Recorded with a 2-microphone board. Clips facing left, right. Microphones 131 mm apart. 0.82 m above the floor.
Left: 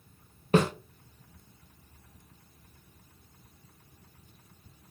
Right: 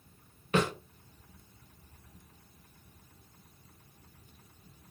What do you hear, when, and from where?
0.5 s a snare drum: 35° left (ahead or behind), 0.7 m